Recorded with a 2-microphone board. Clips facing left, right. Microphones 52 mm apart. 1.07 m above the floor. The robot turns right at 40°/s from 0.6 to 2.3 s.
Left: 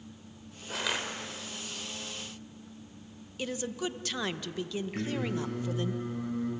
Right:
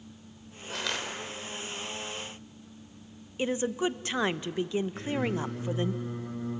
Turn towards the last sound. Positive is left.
turn(degrees=70)  # may be behind; listen again after turning